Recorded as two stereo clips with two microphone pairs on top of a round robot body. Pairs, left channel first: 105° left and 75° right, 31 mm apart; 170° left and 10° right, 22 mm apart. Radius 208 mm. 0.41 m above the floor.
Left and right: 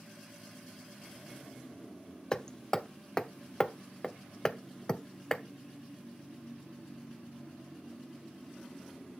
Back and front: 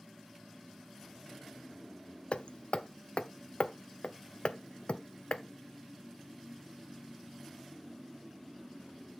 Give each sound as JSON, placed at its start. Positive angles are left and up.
{"t": 2.3, "sound": "hammering", "azimuth_deg": 160, "distance_m": 0.6}